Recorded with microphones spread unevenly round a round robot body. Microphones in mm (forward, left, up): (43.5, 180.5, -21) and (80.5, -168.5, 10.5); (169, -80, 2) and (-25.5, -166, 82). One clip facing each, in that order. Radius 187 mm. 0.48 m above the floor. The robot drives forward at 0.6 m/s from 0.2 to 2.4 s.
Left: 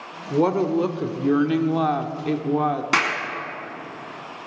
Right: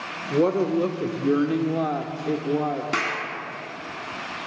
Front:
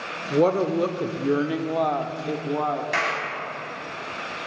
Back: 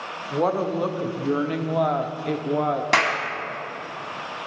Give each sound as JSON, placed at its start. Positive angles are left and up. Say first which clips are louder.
{"t": 0.3, "sound": "a woman speaking", "louder": "left 1 dB, front 4 dB", "azimuth_deg": 20, "distance_m": 1.3}
{"t": 2.9, "sound": "a clap", "louder": "left 2 dB, back 4 dB", "azimuth_deg": 170, "distance_m": 3.5}